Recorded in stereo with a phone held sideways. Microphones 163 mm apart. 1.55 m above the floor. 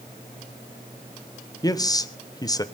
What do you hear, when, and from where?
1.6 s a man speaking: 25° left (ahead or behind), 1.1 m